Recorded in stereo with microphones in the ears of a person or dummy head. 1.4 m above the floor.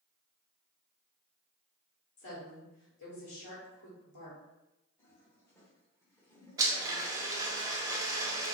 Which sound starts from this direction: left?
A woman speaking, at 2.2 s.